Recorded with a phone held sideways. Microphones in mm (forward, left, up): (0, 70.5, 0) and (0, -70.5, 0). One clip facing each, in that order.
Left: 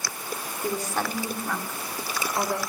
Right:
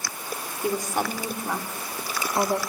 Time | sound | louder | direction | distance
0.6 | a woman speaking | right 2 dB | 15° right (ahead or behind) | 4 m